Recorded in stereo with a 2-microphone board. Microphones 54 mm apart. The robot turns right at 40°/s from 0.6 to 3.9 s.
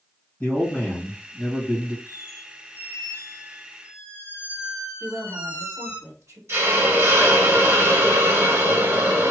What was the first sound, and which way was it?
A man speaking, 145° left.